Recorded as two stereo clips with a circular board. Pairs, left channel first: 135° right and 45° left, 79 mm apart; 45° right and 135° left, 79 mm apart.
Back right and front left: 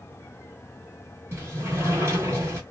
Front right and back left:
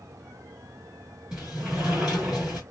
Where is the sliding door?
65° left, 1.2 m.